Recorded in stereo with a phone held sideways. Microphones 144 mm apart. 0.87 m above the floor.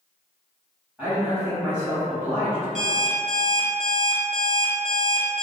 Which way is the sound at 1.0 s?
10° right (ahead or behind).